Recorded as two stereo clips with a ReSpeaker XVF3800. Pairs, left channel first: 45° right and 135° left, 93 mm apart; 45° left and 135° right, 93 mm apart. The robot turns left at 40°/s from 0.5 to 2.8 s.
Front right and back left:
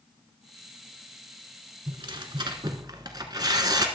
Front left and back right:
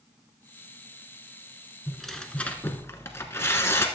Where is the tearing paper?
140° left, 1.0 m; by 3.9 s 105° left, 1.0 m.